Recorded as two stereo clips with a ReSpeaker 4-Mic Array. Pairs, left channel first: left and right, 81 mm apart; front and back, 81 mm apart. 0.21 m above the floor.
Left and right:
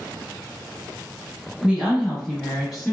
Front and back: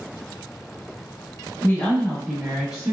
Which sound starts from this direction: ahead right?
A woman speaking, at 1.6 s.